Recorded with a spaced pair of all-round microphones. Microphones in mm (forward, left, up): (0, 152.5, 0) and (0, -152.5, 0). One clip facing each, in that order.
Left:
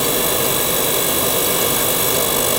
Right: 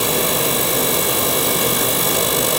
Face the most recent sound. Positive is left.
No sound to turn to.